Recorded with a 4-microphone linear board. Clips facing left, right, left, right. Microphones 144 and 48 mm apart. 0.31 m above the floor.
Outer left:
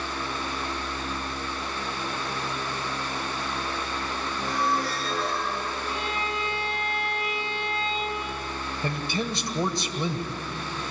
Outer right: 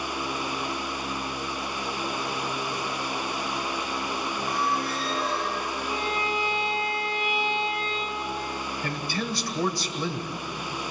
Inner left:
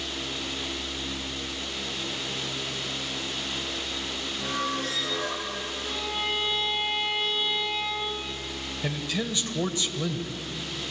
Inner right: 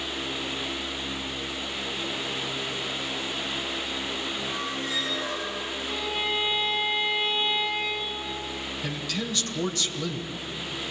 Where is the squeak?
85° left, 5.5 m.